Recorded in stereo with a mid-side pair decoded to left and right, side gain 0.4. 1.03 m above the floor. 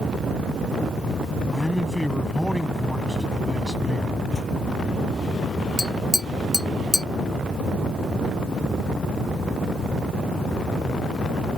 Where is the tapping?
10° left.